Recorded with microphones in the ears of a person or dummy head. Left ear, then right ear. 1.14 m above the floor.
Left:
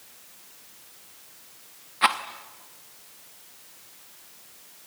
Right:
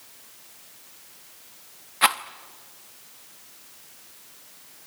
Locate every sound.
2.0 s a rattle: 15° right (ahead or behind), 0.7 m